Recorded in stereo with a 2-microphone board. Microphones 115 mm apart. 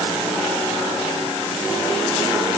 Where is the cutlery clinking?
I don't hear cutlery clinking.